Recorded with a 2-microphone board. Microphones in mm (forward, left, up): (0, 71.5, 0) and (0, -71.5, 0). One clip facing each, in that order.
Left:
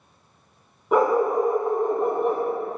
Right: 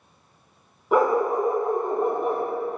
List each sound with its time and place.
0.9 s a dog barking: centre (ahead or behind), 1.4 m